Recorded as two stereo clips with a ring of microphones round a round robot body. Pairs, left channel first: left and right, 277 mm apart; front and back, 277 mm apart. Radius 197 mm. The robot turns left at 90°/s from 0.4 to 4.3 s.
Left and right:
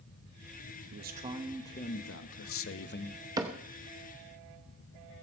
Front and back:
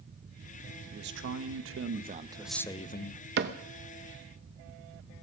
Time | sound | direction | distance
0.9 | a man speaking | 125° right | 0.9 m
3.4 | a cupboard door | 160° right | 0.7 m